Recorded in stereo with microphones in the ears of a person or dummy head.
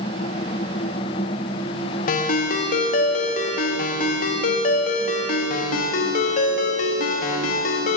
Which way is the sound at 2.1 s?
40° left (ahead or behind).